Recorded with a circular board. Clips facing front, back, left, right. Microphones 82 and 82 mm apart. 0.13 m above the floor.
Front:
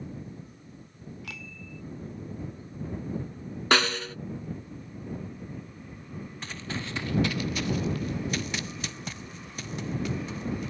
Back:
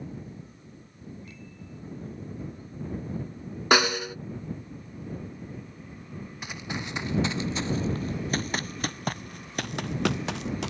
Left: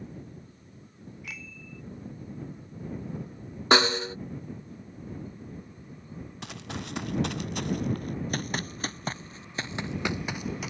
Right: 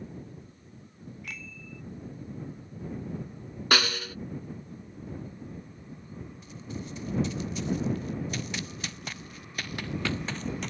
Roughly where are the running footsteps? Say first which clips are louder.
Back 1 dB, left 2 dB; left.